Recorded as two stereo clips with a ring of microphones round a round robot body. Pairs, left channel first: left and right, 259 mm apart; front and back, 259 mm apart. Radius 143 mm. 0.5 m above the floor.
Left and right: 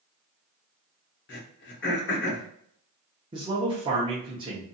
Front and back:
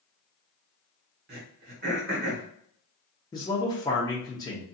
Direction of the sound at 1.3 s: 130° left.